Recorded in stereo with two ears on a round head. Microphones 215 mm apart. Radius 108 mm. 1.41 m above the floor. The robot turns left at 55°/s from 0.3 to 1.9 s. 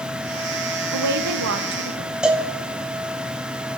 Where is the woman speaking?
85° right, 0.8 m; by 2.1 s 140° right, 0.8 m.